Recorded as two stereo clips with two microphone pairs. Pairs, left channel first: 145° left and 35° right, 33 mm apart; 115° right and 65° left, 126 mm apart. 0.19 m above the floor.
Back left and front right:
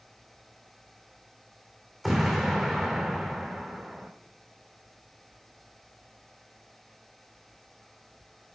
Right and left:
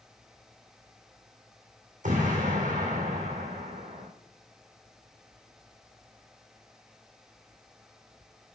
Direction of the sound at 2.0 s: 55° left.